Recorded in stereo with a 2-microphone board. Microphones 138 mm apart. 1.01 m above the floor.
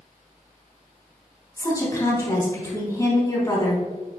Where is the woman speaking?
25° left (ahead or behind), 3 m.